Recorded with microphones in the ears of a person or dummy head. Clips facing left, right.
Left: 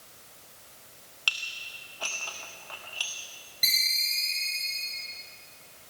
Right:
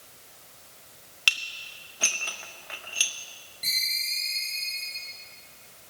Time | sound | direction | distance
1.3 | dishes clattering | 25° right (ahead or behind) | 0.5 m
3.6 | a ringtone | 30° left (ahead or behind) | 4.5 m